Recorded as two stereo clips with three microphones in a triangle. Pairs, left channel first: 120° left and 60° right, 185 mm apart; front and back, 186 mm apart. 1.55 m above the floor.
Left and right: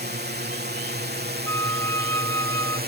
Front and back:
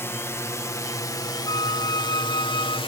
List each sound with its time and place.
0.0 s a drone: 75° right; by 2.9 s 55° right
1.5 s a flute: 55° left